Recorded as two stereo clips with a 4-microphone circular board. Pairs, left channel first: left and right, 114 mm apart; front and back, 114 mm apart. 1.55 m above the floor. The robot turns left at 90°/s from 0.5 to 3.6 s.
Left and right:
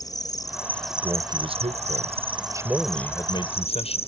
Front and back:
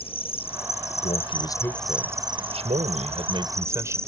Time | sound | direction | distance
0.0 | an insect | 35° left | ?
1.0 | a man speaking | 10° right | ?